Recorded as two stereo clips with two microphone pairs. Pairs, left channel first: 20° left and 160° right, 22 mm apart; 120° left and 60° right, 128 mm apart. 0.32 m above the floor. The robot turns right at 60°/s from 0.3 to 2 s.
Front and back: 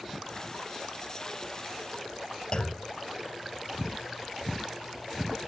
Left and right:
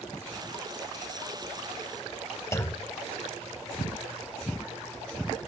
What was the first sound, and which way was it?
A clunk, 55° left.